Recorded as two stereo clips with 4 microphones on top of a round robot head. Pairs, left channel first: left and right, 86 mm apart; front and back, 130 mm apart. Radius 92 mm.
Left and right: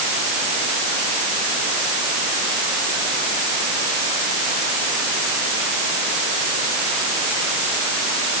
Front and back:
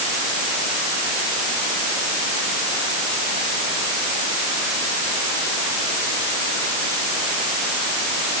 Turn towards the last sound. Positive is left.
No sound to turn to.